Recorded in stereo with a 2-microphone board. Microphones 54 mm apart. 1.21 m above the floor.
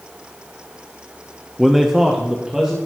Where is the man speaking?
Centre (ahead or behind), 0.6 m; by 2.8 s 15° right (ahead or behind), 2 m.